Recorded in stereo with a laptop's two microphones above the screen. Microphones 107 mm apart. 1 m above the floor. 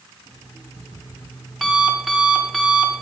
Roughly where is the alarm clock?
Centre.